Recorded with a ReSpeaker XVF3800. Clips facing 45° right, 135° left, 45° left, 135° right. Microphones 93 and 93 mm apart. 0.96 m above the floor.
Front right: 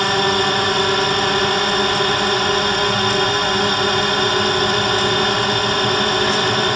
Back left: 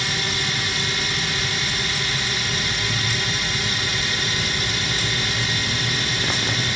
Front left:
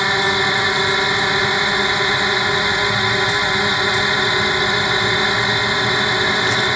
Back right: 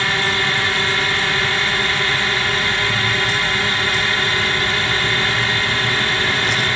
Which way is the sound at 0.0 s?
25° right.